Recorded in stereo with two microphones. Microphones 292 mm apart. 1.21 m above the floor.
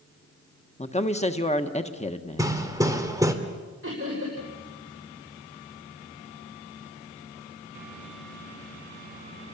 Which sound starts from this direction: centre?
Hammering, at 2.4 s.